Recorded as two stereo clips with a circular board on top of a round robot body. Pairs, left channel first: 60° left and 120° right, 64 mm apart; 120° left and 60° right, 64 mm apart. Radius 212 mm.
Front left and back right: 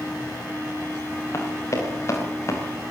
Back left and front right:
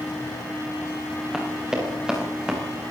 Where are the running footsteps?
20° left, 8 m.